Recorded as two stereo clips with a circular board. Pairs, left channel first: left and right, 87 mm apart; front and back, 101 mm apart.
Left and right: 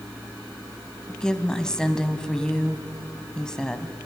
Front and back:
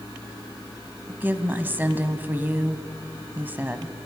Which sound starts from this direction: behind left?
A woman speaking, at 1.1 s.